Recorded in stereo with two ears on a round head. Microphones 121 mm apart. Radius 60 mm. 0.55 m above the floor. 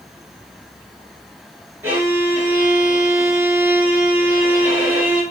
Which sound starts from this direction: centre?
A violin, at 1.8 s.